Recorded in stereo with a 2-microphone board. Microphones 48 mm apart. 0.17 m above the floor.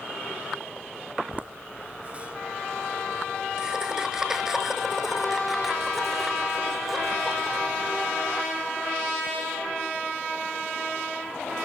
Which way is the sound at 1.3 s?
35° right (ahead or behind).